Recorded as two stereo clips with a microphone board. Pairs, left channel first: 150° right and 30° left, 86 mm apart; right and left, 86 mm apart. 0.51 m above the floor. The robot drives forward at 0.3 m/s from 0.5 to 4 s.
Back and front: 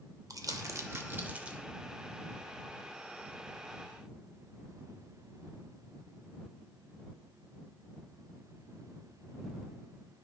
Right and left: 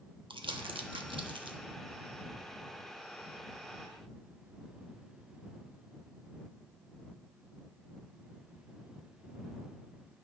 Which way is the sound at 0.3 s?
75° left.